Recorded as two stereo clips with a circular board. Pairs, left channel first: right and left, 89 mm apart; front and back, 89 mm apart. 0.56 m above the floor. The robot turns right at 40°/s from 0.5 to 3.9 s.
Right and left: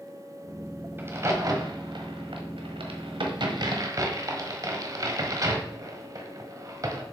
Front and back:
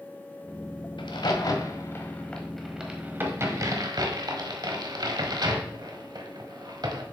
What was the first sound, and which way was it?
A crack, 25° left.